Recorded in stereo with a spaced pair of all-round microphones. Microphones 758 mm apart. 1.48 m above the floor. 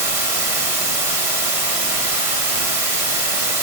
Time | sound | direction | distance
0.0 | running water | 50° right (ahead or behind) | 1.6 m